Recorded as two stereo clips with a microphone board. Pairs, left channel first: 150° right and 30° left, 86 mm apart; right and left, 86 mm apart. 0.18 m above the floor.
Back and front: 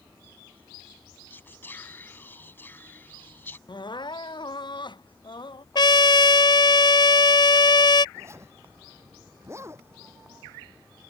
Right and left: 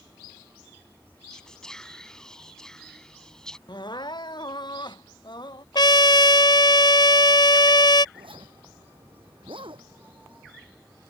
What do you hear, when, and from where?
1.3 s whispering: 160° right
3.7 s crying: 120° right
5.8 s a trumpet: 120° right
8.2 s a zipper: 85° left